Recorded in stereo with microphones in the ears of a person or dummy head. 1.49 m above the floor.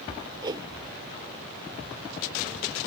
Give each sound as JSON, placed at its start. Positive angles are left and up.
{"t": 0.4, "sound": "a whoosh", "side_deg": -20}